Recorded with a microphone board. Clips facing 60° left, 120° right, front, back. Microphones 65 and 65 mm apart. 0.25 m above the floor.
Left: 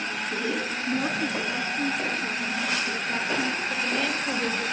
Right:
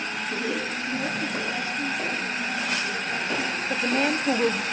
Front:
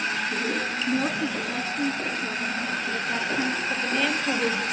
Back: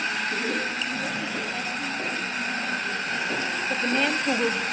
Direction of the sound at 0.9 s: 20° left.